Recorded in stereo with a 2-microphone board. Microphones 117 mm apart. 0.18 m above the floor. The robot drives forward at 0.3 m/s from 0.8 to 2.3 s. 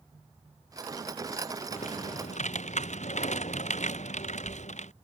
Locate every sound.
1.7 s typing on a keyboard: 85° left